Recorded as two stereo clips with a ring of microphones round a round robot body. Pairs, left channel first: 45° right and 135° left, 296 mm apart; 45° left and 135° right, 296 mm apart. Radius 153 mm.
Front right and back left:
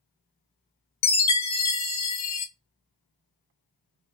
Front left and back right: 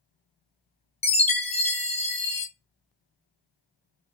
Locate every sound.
1.0 s a chime: 20° right, 0.6 m